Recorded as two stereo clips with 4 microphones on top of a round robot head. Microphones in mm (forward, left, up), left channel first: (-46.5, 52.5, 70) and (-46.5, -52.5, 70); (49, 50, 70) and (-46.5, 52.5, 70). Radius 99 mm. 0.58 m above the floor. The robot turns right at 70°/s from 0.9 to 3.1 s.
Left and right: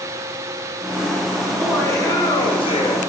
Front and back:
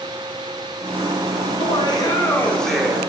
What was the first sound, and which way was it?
Laughter, straight ahead.